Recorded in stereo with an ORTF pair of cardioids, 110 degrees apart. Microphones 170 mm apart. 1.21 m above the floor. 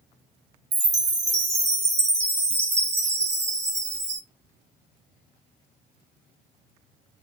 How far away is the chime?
About 0.6 m.